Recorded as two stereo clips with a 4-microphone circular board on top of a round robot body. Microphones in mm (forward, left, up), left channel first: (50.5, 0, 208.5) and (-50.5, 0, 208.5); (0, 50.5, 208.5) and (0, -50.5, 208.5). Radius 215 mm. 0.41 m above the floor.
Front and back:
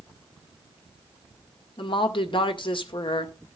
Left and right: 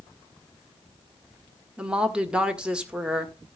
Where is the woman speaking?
10° right, 1.8 m.